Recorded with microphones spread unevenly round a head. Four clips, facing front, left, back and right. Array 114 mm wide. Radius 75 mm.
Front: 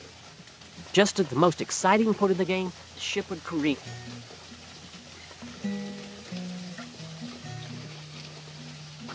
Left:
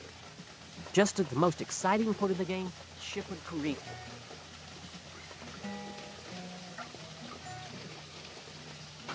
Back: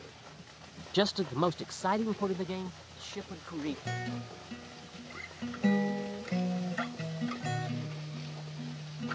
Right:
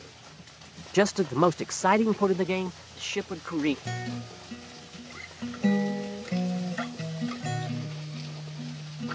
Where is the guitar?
115° right.